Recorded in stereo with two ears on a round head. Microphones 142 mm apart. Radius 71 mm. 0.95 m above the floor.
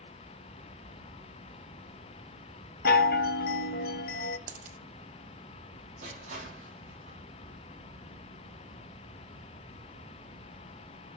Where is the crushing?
50° right (ahead or behind), 6 m.